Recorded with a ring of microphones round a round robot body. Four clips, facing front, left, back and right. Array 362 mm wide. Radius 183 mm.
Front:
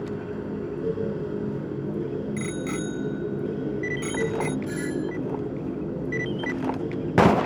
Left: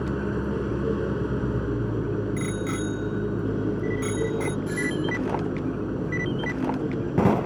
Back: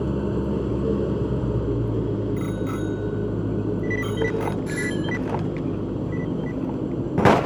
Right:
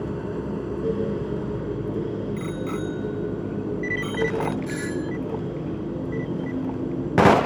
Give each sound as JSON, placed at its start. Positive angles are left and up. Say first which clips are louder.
{"t": 0.0, "sound": "an engine running", "louder": "left 1 dB, back 6 dB", "azimuth_deg": 160}
{"t": 2.4, "sound": "a bicycle bell", "louder": "even, back 3 dB", "azimuth_deg": 40}
{"t": 4.7, "sound": "a doorbell", "louder": "left 1 dB, back 2 dB", "azimuth_deg": -135}